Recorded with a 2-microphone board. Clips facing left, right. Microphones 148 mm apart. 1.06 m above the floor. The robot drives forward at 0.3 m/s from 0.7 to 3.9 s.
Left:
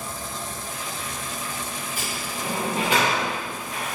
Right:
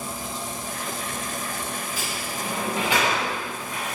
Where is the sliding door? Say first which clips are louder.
Even; 50° left (ahead or behind), 1.4 m; by 4.0 s 40° left (ahead or behind), 1.8 m.